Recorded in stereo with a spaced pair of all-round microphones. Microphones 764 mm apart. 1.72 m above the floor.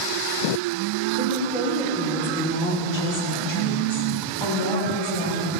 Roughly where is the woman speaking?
Centre.